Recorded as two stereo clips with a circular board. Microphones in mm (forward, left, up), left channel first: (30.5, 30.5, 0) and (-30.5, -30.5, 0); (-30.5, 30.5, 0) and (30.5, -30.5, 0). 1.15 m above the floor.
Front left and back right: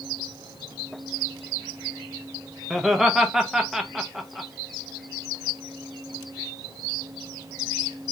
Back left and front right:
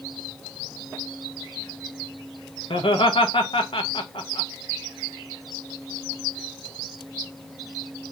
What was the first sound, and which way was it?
Laughter, 140° left.